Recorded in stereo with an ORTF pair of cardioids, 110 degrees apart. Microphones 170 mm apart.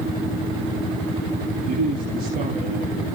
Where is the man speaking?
55° right, 3 m.